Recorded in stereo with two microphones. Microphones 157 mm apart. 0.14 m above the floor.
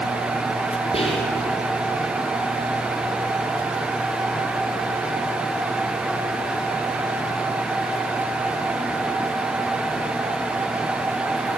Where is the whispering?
35° left (ahead or behind), 4 m.